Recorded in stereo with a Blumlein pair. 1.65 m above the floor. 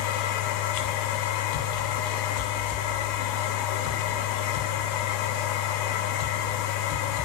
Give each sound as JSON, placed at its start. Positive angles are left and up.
{"t": 0.0, "sound": "a machine running", "azimuth_deg": 45, "distance_m": 0.8}